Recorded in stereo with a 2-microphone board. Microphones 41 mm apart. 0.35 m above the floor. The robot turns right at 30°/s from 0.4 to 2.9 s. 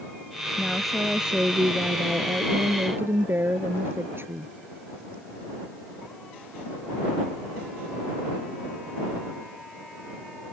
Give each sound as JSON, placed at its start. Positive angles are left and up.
{"t": 0.6, "sound": "a woman speaking", "azimuth_deg": 175}